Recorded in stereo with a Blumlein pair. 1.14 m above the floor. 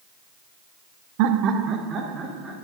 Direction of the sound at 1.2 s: 45° right.